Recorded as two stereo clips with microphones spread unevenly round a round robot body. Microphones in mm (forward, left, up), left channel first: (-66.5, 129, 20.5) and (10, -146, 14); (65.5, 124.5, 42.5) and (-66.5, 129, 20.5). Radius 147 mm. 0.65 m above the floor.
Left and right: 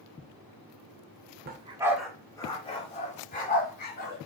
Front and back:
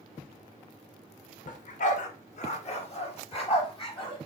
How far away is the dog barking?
About 0.5 m.